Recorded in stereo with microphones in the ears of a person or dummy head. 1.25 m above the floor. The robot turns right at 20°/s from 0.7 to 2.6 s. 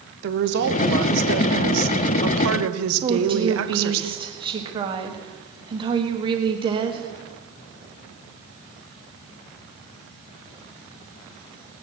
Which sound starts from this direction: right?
A woman speaking, at 3.0 s.